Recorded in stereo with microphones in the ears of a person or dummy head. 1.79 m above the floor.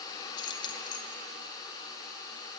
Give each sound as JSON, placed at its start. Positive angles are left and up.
{"t": 0.4, "sound": "keys jangling", "side_deg": 25, "distance_m": 1.6}